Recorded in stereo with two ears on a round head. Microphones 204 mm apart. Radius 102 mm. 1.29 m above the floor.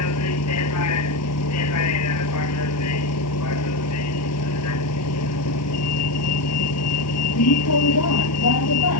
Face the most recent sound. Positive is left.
turn(degrees=75)  # may be behind; listen again after turning